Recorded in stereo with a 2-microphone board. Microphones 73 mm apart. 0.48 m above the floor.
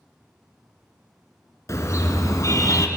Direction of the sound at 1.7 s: 40° left (ahead or behind).